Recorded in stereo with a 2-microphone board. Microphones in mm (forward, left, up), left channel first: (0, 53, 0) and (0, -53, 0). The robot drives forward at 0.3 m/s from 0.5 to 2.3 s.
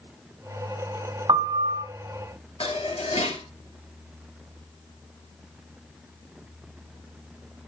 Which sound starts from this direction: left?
Dishes clattering, at 2.6 s.